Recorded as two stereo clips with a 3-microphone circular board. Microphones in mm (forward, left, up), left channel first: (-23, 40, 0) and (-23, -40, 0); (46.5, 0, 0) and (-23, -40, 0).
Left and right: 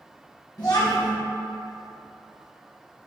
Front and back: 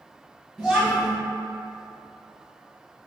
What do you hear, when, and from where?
0.6 s a child speaking: 125° left, 1.3 m